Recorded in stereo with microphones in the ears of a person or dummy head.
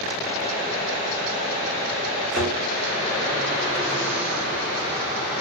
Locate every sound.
2.3 s a thud: centre (ahead or behind), 1.9 m